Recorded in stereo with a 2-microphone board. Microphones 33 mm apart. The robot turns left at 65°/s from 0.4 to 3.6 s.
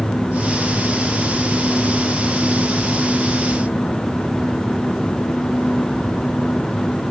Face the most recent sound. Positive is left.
No sound to turn to.